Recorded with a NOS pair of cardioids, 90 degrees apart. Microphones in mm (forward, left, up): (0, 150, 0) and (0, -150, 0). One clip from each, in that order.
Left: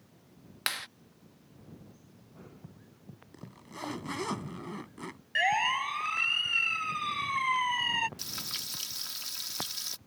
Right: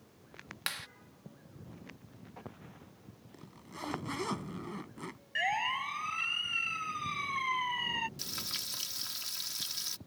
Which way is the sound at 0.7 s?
25° left.